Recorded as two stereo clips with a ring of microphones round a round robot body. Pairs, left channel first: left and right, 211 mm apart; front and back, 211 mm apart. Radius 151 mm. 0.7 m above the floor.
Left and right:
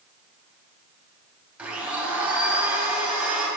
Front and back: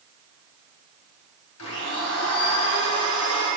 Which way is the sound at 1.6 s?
5° right.